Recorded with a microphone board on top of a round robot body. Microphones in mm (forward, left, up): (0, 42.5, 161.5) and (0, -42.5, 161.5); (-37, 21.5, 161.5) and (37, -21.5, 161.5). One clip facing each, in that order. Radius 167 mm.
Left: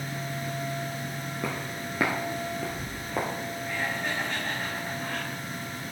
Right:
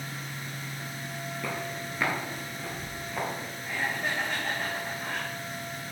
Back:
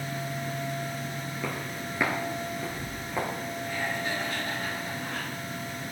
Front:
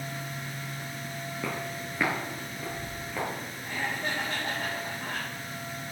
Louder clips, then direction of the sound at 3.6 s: Right 1 dB, even; 20° right.